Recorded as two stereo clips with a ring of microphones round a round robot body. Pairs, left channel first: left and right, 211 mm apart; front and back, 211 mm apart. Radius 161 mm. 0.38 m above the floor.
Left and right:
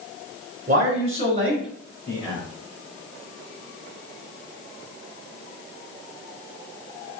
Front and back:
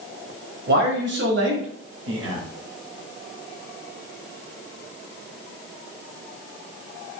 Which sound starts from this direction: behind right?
A man speaking, at 0.7 s.